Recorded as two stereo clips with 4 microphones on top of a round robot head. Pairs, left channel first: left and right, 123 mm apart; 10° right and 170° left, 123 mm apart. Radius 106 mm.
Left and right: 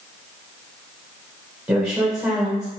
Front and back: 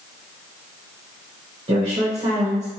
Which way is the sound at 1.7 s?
155° right.